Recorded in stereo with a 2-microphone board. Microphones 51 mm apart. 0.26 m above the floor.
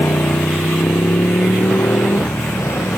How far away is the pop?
I don't hear a pop.